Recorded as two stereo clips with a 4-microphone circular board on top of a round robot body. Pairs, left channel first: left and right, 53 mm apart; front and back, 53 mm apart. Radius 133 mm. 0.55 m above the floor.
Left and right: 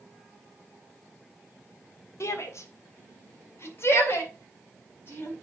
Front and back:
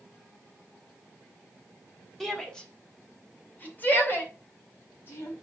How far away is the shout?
About 1.9 m.